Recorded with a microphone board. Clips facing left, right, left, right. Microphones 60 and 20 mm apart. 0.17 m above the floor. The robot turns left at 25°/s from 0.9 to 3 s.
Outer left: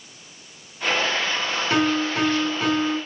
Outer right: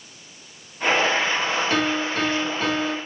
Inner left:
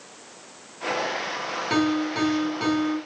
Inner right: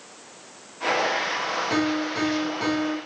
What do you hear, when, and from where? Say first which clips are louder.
1.7 s a piano: outer left 2 dB, inner left 4 dB; 35° left, 1.6 m; by 3.0 s straight ahead, 1.6 m